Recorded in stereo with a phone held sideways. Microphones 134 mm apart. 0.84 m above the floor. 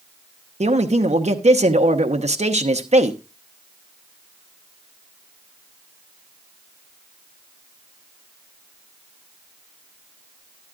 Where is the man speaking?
55° right (ahead or behind), 0.9 m.